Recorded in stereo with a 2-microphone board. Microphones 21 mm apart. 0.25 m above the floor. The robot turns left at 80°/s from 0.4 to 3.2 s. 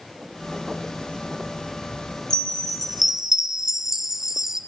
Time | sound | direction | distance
2.3 | a chime | 50° left | 2 m